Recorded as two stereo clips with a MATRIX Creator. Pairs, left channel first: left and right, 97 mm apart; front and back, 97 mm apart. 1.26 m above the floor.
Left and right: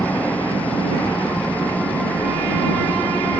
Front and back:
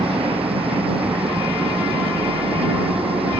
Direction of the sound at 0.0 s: 165° left.